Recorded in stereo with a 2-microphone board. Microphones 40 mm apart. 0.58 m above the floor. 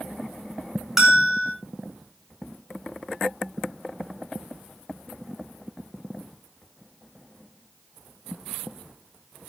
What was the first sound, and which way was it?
A bell, 10° right (ahead or behind).